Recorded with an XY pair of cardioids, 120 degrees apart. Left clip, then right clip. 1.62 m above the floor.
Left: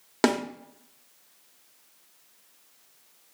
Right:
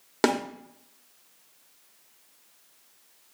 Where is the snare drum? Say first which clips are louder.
Even; straight ahead, 1.0 m.